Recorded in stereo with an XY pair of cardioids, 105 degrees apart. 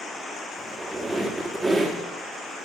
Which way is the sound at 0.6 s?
15° right.